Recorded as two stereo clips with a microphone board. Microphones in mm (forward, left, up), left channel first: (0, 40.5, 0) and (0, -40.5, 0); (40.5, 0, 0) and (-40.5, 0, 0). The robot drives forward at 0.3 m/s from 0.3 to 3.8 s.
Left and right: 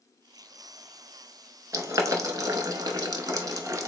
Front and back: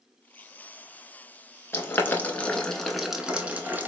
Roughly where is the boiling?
Ahead right.